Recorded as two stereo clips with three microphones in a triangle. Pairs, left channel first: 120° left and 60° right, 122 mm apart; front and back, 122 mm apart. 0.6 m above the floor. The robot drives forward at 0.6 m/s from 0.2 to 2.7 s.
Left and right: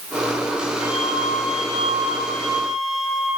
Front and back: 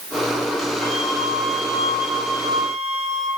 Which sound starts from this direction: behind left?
A flute, at 0.8 s.